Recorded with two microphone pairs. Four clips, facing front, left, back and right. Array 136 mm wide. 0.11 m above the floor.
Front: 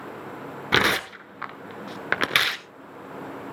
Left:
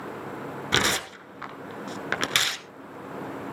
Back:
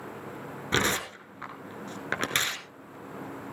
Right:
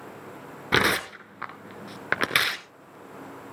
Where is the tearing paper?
35° right, 0.7 m.